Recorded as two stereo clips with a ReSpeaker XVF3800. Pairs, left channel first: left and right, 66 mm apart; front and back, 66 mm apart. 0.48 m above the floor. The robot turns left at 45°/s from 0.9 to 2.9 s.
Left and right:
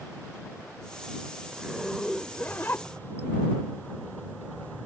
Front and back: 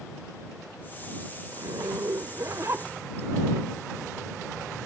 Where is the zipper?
165° right; by 3.3 s 135° left.